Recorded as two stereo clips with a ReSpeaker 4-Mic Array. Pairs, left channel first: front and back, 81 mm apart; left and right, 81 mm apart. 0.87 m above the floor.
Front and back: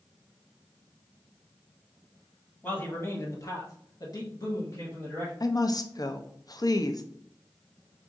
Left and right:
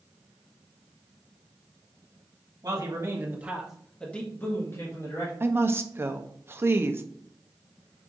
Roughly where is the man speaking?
Ahead right.